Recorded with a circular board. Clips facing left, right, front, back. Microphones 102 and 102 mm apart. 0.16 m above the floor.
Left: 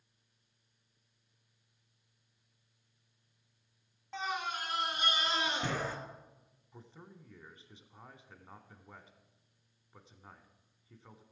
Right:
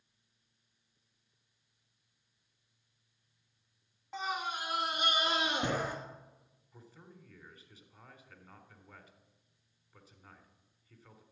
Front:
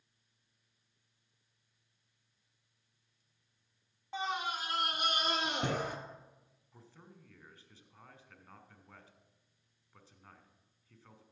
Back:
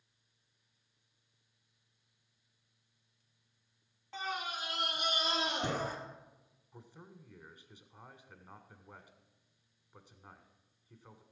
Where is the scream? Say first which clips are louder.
Even, front 3 dB; 20° right, 1.2 m; by 6.0 s 15° right, 3 m.